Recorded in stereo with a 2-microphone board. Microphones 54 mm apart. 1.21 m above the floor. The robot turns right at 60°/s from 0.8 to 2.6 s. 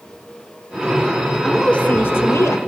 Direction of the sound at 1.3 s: Straight ahead.